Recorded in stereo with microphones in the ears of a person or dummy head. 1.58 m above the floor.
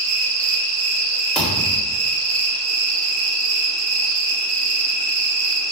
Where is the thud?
Centre (ahead or behind), 1.7 m.